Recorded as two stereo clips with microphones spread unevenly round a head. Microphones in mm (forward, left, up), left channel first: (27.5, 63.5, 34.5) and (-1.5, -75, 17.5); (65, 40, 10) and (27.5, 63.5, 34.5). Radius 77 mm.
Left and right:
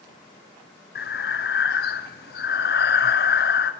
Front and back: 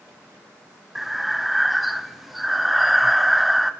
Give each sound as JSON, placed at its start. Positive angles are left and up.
{"t": 0.9, "sound": "breathing", "azimuth_deg": 75, "distance_m": 0.7}